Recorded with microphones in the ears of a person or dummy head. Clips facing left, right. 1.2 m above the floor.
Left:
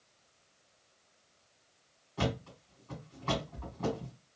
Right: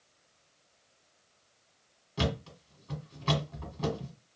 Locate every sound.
2.2 s a thud: 35° right (ahead or behind), 1.4 m